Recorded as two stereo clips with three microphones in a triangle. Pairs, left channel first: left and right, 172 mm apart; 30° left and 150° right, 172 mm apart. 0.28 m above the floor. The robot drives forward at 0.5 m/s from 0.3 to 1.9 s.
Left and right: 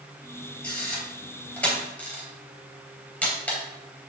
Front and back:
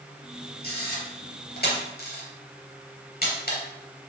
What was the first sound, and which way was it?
A camera shutter, 5° left.